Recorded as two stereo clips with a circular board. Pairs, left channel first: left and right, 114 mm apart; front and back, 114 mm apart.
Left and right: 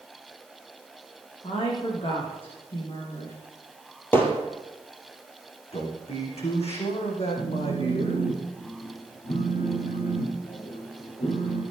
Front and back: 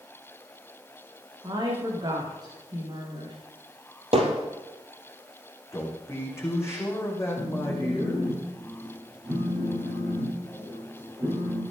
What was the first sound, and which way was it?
A woman speaking, 125° left.